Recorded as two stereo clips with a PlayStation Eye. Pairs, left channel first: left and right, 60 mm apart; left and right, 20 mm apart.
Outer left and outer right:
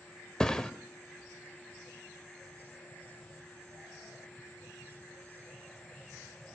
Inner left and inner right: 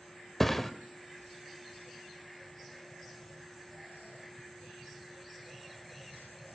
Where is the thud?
15° left (ahead or behind), 0.8 m.